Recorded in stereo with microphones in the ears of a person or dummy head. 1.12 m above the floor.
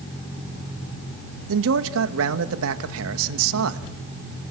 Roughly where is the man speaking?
Right.